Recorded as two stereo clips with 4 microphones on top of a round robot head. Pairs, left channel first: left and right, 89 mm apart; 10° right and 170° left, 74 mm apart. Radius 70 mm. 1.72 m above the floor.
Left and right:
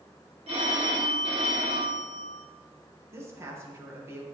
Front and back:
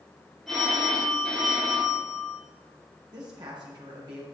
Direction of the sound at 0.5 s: 95° right.